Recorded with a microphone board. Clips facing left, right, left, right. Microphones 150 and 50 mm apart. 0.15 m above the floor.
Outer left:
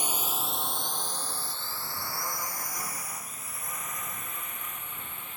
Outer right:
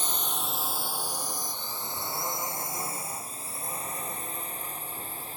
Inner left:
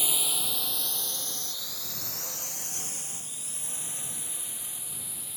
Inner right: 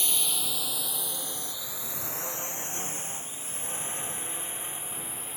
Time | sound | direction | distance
0.0 | a drone | 10° left (ahead or behind) | ?